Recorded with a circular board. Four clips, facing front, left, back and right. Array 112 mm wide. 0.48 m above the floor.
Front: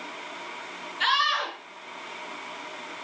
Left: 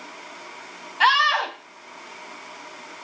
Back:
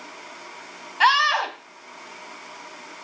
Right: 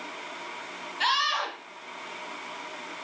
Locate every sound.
1.0 s a scream: 145° left, 2.5 m